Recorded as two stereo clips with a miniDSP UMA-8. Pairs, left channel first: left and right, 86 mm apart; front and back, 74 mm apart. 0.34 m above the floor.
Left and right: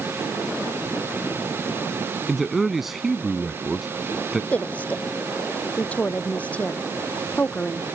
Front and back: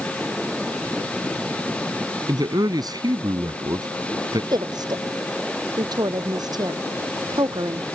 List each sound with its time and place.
2.3 s a man speaking: 175° right
4.5 s a woman speaking: 165° left